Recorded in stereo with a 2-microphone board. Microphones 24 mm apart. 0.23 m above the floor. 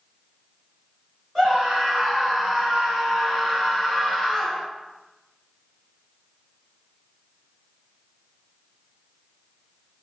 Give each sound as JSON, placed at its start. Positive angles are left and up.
{"t": 1.4, "sound": "a scream", "side_deg": -10, "distance_m": 1.8}